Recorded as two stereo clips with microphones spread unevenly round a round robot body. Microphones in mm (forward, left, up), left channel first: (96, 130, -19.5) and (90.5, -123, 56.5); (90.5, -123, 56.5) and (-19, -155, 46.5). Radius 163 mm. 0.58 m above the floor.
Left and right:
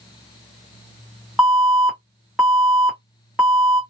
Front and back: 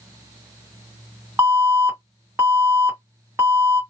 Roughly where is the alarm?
Behind left.